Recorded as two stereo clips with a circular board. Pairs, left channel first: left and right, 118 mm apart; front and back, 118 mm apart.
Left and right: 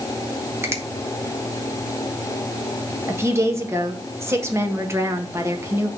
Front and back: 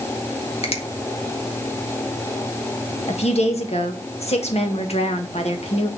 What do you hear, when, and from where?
0.6 s a finger snap: 25° right, 1.7 m
3.1 s a woman speaking: 25° right, 1.8 m